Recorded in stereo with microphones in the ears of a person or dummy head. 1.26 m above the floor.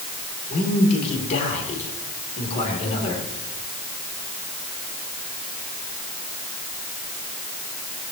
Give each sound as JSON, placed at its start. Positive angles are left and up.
{"t": 0.5, "sound": "a man speaking", "side_deg": 40, "distance_m": 3.5}